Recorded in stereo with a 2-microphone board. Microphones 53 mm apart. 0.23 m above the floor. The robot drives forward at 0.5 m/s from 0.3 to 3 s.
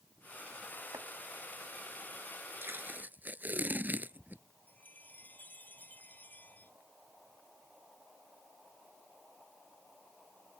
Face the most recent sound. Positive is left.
turn(degrees=35)  # may be behind; listen again after turning